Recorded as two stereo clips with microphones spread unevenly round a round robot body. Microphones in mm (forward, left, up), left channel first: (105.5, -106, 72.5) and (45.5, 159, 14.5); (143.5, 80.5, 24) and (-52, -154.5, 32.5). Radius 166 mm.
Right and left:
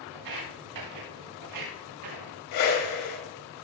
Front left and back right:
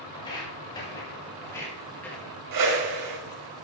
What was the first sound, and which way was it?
Footsteps, 125° left.